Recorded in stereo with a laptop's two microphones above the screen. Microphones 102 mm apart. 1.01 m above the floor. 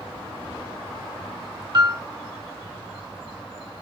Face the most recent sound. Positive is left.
turn(degrees=-45)  # may be behind; listen again after turning